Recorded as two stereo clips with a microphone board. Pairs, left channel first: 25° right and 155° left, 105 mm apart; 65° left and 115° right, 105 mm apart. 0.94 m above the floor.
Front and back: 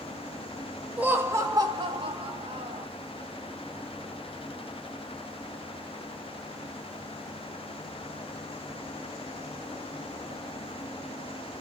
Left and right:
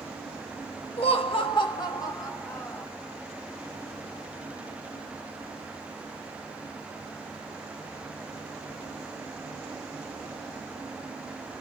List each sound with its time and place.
1.0 s laughter: 80° left, 1.5 m; by 2.9 s 135° left, 2.5 m